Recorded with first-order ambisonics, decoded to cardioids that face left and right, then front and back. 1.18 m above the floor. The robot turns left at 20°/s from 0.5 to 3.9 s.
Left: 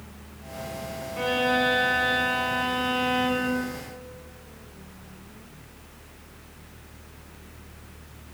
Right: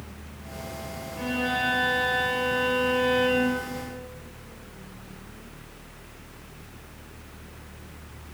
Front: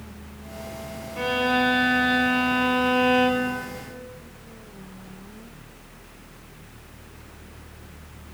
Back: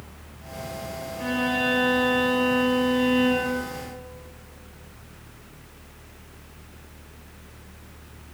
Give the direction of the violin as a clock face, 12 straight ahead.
11 o'clock.